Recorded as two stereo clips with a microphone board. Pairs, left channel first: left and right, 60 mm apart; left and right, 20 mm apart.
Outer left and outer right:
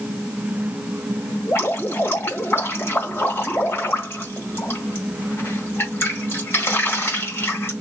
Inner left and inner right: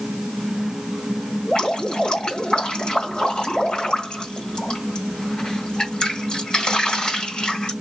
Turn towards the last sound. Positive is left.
turn(degrees=45)  # may be behind; listen again after turning